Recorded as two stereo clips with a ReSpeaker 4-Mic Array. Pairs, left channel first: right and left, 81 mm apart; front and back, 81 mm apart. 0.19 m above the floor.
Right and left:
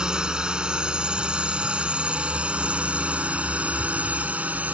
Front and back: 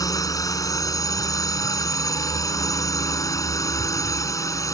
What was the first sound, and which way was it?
A drone, 15° left.